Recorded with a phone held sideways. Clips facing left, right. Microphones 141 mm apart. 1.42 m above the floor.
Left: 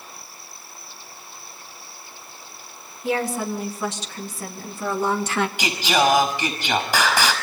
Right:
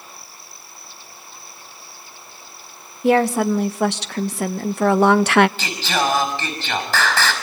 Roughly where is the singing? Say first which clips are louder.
Left 2 dB; centre.